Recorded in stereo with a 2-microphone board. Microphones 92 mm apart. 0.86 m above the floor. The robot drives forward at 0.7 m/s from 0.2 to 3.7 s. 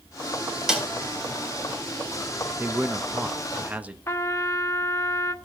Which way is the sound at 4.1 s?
30° left (ahead or behind).